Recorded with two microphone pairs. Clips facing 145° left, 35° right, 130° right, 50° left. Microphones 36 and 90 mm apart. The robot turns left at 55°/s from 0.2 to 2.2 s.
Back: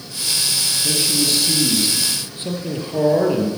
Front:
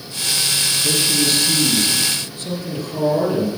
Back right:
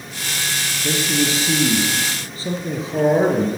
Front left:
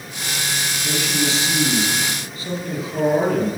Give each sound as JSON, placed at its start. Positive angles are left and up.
{"t": 0.8, "sound": "a man speaking", "azimuth_deg": -95, "distance_m": 2.0}